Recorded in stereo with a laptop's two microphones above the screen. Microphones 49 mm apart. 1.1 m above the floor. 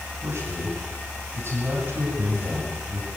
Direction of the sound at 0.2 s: 50° right (ahead or behind).